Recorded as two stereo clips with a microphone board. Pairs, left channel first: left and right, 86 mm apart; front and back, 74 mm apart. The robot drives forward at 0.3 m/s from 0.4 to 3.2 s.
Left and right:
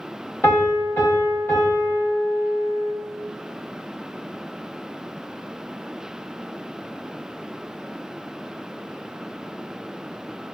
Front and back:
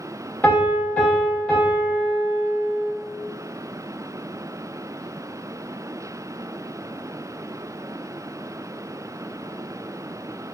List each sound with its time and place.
0.4 s a piano: 50° left, 1.3 m; by 2.9 s 115° left, 1.3 m